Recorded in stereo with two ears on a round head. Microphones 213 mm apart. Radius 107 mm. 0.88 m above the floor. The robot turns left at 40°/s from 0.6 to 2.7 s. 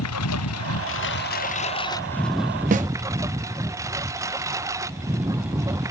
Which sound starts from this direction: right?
A snare drum, at 2.7 s.